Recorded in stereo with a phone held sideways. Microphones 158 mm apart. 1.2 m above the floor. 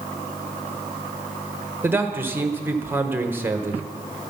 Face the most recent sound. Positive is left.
turn(degrees=-15)  # may be behind; listen again after turning